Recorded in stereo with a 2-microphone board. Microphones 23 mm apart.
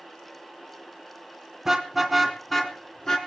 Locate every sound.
1.6 s a car horn: 20° right (ahead or behind), 2.5 m; by 3.2 s 25° left (ahead or behind), 3 m